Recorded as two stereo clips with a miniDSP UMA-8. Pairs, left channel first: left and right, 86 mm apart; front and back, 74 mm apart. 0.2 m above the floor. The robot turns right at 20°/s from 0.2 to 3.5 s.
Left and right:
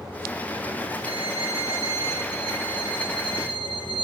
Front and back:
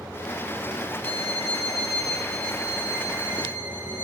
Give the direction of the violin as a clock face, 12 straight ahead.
5 o'clock.